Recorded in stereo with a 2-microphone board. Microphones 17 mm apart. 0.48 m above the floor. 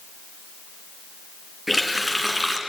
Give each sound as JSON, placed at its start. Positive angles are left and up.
{"t": 1.7, "sound": "a running tap", "side_deg": -20, "distance_m": 3.5}